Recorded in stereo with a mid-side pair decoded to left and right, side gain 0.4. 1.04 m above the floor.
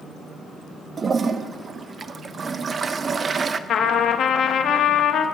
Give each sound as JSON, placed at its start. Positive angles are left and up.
{"t": 1.0, "sound": "a toilet flushing", "azimuth_deg": -40, "distance_m": 0.5}
{"t": 3.7, "sound": "a trumpet", "azimuth_deg": 70, "distance_m": 0.9}